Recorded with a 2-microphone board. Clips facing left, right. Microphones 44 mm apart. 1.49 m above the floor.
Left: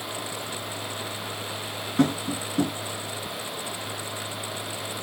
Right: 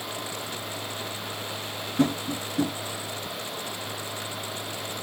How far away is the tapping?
About 6.5 m.